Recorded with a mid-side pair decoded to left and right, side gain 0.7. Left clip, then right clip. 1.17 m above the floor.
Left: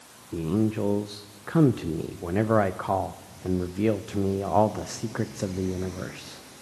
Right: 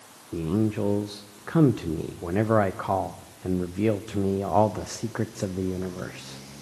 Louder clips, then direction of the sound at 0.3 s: Even; straight ahead.